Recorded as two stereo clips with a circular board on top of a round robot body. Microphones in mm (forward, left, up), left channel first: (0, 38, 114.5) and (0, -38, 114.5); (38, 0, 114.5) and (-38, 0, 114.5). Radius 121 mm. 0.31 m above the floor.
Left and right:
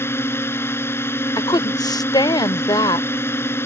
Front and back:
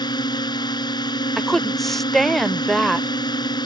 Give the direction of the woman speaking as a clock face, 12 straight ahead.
9 o'clock.